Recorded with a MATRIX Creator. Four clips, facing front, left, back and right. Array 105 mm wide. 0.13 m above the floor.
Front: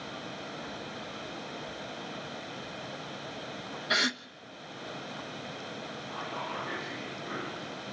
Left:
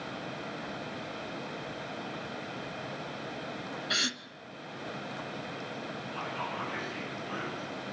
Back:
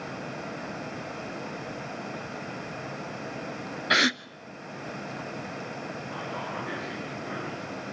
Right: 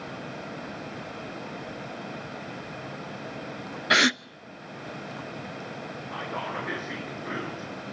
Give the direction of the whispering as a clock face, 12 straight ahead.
3 o'clock.